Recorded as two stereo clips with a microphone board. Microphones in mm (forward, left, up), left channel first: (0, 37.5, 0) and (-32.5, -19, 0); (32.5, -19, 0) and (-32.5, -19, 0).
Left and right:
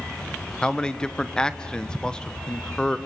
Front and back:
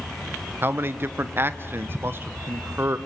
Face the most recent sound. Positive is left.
turn(degrees=135)